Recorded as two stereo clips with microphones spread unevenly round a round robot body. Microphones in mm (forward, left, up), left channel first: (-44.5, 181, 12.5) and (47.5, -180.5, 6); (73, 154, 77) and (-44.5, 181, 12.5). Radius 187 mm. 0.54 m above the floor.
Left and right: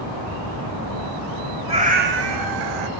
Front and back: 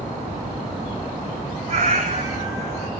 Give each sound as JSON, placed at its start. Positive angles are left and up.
{"t": 1.7, "sound": "a cat meowing", "azimuth_deg": -150, "distance_m": 1.1}